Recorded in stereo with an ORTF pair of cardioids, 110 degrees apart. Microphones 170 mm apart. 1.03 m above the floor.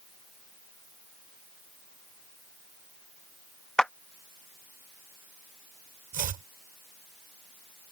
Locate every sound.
3.8 s a clap: 5° left
6.1 s chopping: 55° right